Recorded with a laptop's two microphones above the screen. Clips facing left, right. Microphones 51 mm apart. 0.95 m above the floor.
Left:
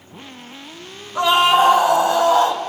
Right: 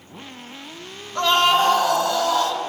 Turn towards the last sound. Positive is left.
turn(degrees=30)  # may be behind; listen again after turning